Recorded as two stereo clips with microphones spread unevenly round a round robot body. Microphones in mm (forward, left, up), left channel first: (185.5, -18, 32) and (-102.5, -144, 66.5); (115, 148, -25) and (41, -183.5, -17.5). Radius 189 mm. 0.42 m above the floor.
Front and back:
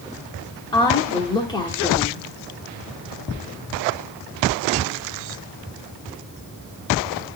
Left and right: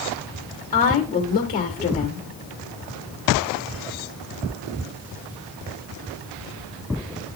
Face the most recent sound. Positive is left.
turn(degrees=65)